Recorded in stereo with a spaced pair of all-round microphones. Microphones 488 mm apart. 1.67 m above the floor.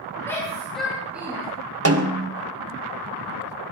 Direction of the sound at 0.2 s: 5° left (ahead or behind).